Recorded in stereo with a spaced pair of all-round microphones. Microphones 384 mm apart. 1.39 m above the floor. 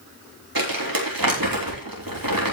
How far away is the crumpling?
About 3.5 m.